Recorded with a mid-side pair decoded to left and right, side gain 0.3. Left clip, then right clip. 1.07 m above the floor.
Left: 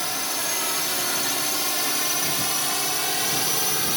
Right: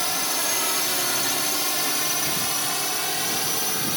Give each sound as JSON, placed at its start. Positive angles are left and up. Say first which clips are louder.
{"t": 0.0, "sound": "a drone", "louder": "right 2 dB", "azimuth_deg": -25}